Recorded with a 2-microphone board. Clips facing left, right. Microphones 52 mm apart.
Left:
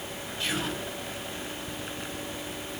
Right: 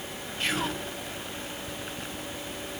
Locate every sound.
0.4 s whispering: 40° right (ahead or behind), 2 m